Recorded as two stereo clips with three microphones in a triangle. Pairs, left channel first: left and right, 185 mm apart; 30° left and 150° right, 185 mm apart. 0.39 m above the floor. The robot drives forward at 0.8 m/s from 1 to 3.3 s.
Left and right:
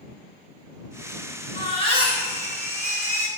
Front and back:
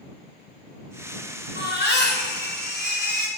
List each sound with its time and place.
1.6 s a baby crying: 30° left, 3.5 m; by 3.3 s 50° left, 2.5 m